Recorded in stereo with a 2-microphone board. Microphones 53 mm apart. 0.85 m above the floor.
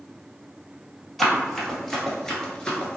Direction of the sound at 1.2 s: Centre (ahead or behind).